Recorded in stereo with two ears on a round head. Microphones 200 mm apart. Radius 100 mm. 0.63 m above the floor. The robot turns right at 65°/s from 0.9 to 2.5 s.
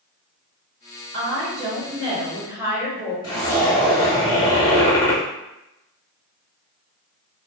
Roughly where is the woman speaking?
Right.